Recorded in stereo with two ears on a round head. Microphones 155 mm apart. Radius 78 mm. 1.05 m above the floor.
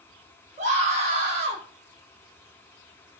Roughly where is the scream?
Right.